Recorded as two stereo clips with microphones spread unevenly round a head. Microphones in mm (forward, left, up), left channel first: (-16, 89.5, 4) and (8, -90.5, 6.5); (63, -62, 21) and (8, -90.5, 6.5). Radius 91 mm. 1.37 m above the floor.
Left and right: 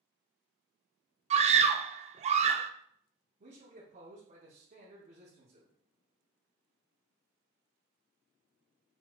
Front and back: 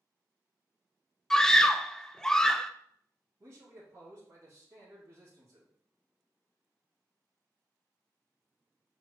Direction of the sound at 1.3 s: 70° right.